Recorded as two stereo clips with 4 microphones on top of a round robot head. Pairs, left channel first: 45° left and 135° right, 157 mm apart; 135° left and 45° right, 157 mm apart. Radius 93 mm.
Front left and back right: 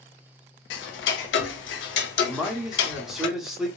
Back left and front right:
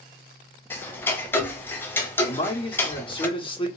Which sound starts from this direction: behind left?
A man speaking, at 2.3 s.